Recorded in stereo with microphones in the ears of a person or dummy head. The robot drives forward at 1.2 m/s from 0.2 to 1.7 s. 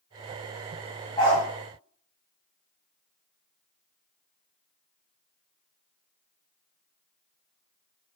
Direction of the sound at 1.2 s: 25° left (ahead or behind).